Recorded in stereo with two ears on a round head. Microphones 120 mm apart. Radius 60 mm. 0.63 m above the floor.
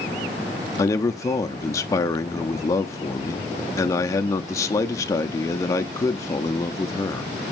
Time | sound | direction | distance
0.8 | a man speaking | 20° left (ahead or behind) | 0.6 m